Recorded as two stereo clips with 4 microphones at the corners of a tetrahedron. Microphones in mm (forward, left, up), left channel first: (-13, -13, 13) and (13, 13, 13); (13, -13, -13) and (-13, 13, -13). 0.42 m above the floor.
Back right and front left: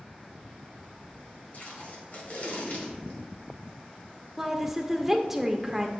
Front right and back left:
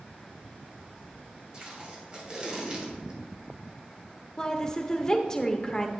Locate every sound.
1.5 s tape being pulled: 160° right, 1.9 m
4.4 s a woman speaking: 20° right, 0.8 m